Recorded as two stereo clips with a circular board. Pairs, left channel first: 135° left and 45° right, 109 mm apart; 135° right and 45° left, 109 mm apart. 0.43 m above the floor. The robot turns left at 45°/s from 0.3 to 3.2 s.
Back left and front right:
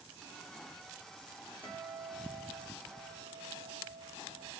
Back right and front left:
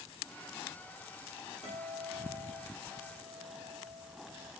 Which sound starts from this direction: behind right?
A guitar, at 1.6 s.